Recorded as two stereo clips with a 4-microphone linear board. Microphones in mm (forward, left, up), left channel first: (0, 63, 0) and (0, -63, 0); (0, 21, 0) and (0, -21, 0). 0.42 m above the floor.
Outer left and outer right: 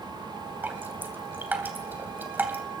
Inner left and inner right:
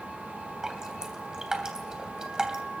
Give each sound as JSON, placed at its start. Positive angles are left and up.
{"t": 0.6, "sound": "dripping", "side_deg": -15, "distance_m": 3.0}